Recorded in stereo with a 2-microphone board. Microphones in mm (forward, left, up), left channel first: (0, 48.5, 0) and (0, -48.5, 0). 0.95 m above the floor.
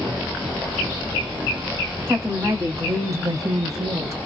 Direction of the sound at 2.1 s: 30° right (ahead or behind).